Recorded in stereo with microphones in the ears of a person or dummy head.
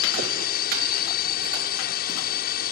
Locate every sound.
0.0 s a drone: 50° left (ahead or behind)